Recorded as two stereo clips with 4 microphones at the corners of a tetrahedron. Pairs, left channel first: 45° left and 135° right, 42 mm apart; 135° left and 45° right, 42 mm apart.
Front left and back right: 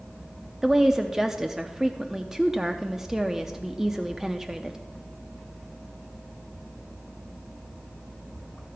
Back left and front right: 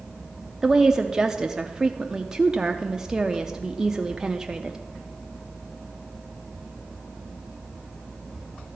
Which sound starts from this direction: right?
A woman speaking, at 0.6 s.